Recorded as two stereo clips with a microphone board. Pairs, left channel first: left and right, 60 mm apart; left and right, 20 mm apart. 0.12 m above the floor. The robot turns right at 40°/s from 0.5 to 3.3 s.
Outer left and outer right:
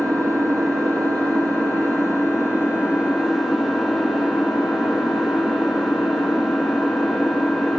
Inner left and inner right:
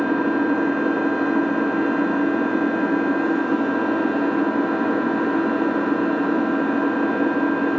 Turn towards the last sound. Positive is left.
turn(degrees=-5)